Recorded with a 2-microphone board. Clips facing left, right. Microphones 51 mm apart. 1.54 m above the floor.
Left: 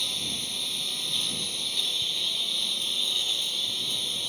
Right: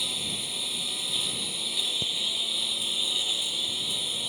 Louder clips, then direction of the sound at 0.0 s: Even; 10° right (ahead or behind).